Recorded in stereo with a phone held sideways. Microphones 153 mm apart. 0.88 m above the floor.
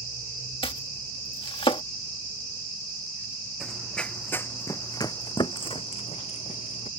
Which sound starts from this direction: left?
Chopping, at 0.6 s.